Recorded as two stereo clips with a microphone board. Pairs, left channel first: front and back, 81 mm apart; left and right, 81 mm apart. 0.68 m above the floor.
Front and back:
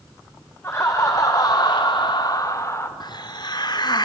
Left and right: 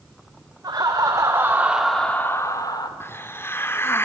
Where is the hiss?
30° left, 0.9 m.